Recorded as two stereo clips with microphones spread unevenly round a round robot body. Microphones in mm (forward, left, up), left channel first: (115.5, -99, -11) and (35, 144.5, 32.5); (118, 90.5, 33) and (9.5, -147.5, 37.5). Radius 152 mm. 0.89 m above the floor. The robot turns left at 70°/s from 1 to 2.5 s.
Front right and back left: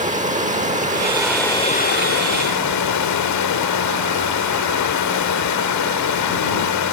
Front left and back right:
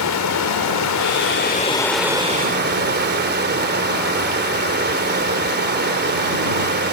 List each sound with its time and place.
0.0 s running water: 45° left; by 6.9 s 60° right